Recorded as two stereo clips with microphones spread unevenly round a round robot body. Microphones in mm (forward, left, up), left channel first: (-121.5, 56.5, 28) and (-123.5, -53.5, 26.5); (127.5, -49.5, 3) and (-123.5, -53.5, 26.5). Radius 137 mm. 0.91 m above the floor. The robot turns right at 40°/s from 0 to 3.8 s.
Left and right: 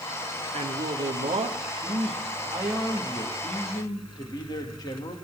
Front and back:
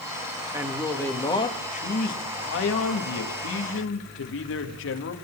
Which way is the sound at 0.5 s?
100° right.